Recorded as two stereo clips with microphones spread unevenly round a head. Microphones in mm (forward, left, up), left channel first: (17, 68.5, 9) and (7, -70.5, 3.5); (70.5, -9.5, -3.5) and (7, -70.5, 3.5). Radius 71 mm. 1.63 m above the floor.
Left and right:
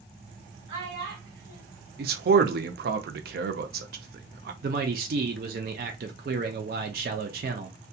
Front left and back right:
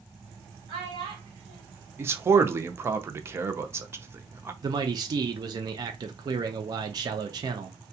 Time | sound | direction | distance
0.7 | a child speaking | 145° right | 1.2 m
2.0 | a man speaking | 75° right | 0.6 m
4.6 | a man speaking | 105° right | 0.5 m